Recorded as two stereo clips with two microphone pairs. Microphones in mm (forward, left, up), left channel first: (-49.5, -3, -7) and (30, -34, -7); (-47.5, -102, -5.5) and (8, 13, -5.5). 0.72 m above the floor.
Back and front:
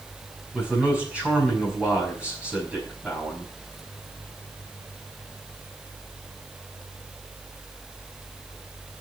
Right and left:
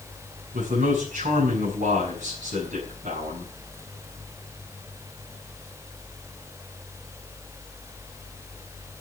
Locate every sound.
0.5 s a man speaking: 55° left, 5.5 m